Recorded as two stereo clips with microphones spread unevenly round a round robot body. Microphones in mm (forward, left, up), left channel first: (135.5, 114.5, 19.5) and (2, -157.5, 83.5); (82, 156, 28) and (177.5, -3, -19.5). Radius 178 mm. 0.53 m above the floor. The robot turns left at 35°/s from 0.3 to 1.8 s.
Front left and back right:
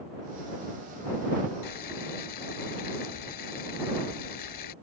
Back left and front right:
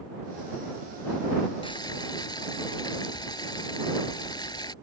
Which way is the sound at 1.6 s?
60° left.